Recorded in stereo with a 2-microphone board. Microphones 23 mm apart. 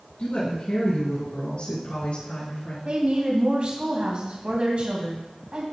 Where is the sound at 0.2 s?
60° left (ahead or behind), 4 m; by 2.8 s 65° left (ahead or behind), 5 m.